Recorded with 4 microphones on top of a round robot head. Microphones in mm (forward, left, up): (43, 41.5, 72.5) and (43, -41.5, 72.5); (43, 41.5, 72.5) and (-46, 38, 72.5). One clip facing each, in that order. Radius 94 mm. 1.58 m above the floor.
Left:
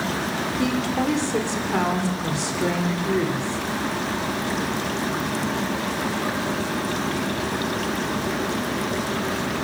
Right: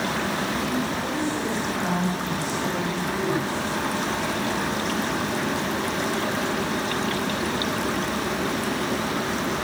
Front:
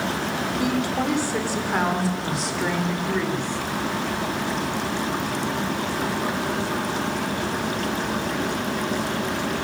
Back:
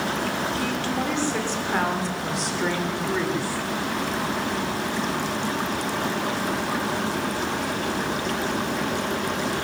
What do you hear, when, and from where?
0.6 s a woman speaking: 75° left, 6 m; by 3.7 s 100° left, 7.5 m